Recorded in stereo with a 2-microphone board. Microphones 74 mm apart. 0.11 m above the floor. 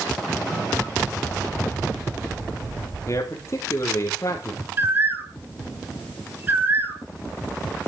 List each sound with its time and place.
3.1 s a man speaking: 40° left (ahead or behind), 2.5 m
4.8 s a bird: 30° right (ahead or behind), 0.9 m